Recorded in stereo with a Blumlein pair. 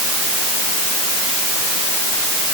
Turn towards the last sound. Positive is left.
No sound to turn to.